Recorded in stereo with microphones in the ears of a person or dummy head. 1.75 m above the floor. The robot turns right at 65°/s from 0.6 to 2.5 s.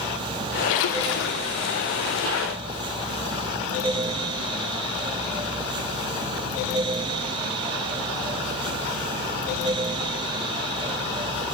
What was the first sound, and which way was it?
A splash, 80° left.